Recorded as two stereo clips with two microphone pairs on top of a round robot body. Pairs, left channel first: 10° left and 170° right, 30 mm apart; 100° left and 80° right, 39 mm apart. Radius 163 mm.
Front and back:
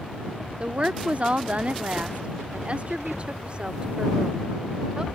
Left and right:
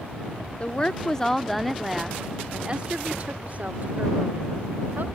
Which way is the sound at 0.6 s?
145° left.